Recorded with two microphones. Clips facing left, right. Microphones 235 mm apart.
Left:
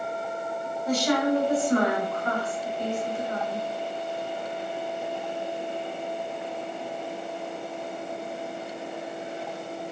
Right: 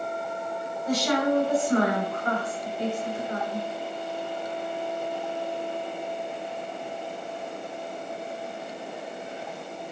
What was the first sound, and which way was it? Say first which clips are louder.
A woman speaking: left 1 dB; 40° right (ahead or behind).